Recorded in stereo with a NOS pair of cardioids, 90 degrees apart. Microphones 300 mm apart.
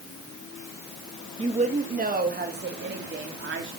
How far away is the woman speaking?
About 2.5 m.